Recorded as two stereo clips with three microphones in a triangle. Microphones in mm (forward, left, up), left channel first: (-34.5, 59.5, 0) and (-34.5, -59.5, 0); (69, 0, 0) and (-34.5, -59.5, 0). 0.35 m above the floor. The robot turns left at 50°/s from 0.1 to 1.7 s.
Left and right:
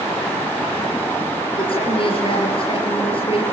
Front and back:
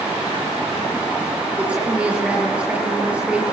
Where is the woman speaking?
135° left, 6.5 m; by 3.4 s 130° left, 6.5 m.